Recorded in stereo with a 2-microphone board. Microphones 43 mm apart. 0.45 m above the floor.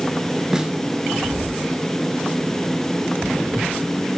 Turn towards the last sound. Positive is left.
turn(degrees=-10)  # may be behind; listen again after turning